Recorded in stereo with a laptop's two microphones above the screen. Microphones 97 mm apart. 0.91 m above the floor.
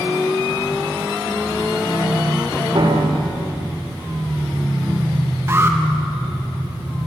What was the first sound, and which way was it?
A piano, 60° right (ahead or behind).